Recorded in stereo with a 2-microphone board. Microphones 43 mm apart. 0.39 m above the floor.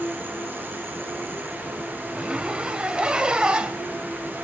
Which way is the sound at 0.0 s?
50° right (ahead or behind).